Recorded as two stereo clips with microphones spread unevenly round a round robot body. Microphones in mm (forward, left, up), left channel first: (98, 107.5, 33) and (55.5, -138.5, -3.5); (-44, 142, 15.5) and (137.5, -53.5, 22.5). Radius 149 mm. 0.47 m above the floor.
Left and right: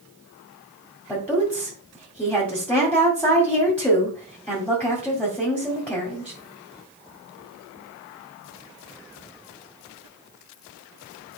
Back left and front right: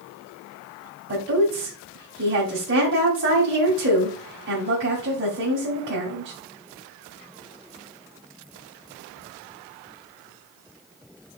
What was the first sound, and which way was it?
A woman speaking, 5° right.